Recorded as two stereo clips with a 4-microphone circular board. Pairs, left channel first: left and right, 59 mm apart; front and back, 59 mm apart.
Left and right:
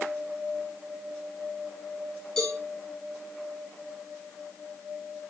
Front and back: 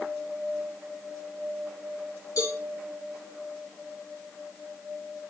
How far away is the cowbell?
About 3 m.